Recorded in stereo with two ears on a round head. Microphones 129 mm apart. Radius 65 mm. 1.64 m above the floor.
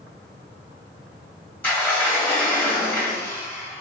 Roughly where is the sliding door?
Centre.